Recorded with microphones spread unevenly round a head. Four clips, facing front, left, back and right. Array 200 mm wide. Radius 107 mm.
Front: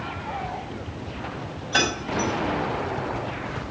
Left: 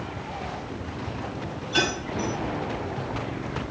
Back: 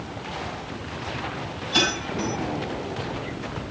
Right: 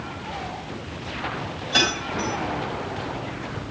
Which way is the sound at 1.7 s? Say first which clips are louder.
Right 1 dB, front 1 dB; 35° right.